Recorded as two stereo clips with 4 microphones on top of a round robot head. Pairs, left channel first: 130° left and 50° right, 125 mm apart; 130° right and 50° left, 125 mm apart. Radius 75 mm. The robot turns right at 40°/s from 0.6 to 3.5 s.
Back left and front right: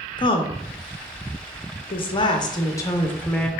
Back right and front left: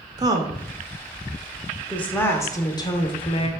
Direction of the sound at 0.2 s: 100° left.